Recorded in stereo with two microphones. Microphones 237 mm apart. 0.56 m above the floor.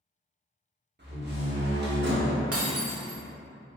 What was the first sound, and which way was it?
A door slam, 45° right (ahead or behind).